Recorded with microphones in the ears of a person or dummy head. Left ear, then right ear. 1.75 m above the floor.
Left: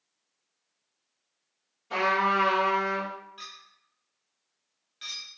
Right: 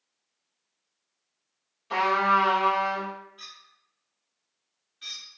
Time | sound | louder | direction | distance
1.9 | a trumpet | right 2 dB | 20° right (ahead or behind) | 0.6 m
3.4 | a clink | left 1 dB | 25° left (ahead or behind) | 0.6 m